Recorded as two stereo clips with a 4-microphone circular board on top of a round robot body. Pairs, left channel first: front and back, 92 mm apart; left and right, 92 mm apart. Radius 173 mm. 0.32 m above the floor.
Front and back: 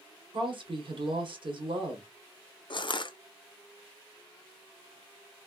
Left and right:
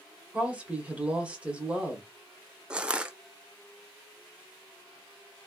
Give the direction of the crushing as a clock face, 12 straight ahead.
12 o'clock.